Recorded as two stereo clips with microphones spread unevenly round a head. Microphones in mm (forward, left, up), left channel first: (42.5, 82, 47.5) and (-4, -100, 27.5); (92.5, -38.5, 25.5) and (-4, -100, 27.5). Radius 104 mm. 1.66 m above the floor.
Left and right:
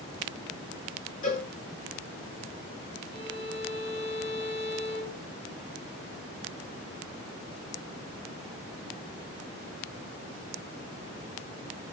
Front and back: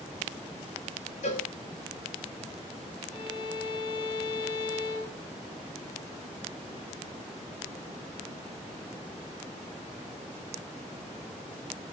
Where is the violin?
35° left, 5 m.